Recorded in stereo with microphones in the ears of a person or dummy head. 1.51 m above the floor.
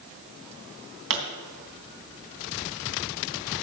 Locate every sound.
1.1 s a pop: 70° right (ahead or behind), 3.5 m